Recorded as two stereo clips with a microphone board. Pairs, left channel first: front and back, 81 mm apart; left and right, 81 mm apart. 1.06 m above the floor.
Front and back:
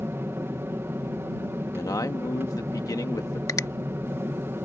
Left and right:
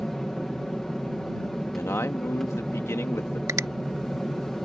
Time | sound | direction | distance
0.0 | an aircraft | 175° left | ?
1.7 | a man speaking | 35° left | ?
3.5 | a finger snap | 45° right | ?